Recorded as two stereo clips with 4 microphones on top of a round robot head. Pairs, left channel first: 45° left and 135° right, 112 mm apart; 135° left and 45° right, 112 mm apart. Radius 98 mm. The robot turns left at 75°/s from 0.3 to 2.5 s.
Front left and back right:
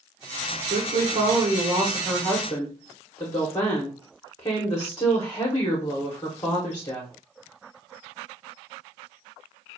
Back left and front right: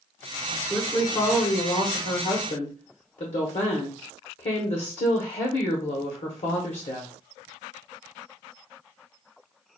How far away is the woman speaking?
About 1.0 m.